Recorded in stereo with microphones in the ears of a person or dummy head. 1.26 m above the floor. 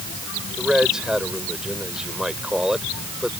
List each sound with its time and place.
0.6 s a man speaking: centre (ahead or behind)